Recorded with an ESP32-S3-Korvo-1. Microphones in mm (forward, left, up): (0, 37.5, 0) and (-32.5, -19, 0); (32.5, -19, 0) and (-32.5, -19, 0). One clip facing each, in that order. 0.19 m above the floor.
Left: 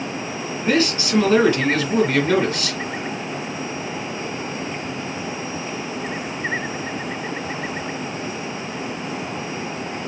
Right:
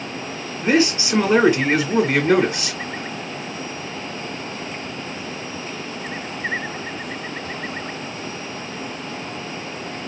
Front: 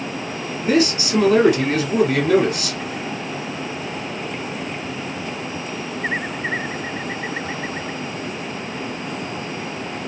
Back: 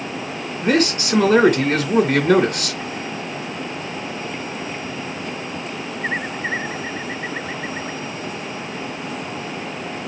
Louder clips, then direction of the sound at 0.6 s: Right 2 dB, even; 170° left.